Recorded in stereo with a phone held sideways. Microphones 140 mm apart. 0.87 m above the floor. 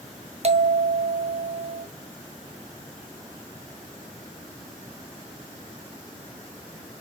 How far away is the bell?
About 0.7 m.